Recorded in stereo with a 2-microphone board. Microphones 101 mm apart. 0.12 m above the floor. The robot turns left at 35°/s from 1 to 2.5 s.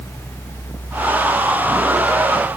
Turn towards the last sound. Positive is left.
No sound to turn to.